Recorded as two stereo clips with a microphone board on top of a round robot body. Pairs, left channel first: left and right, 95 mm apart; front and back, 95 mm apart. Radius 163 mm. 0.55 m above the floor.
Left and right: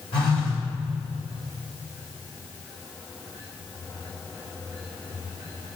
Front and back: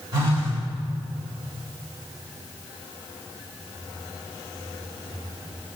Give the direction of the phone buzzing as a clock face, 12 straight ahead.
8 o'clock.